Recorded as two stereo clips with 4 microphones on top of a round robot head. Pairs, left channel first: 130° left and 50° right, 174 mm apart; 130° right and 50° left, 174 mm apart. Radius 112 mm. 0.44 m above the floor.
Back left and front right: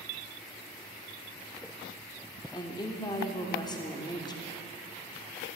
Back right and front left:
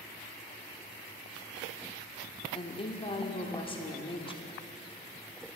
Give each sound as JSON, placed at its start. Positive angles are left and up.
{"t": 2.5, "sound": "a woman speaking", "azimuth_deg": -175, "distance_m": 1.2}